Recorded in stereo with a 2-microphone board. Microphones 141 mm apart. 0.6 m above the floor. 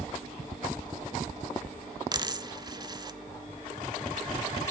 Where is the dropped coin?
30° right (ahead or behind), 0.6 m.